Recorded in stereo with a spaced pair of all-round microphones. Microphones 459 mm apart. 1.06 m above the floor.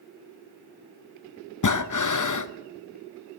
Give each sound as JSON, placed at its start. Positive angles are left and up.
{"t": 1.6, "sound": "breathing", "side_deg": 45, "distance_m": 0.5}